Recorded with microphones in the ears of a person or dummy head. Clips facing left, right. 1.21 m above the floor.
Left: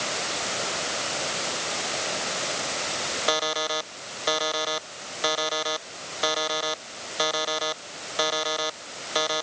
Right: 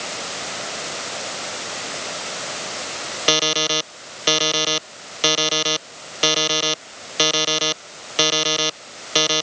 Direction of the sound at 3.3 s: 45° right (ahead or behind).